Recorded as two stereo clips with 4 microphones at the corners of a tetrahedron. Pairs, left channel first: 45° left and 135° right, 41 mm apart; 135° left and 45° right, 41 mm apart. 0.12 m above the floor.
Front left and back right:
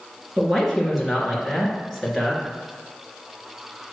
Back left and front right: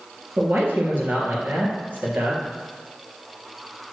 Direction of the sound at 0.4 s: 45° right.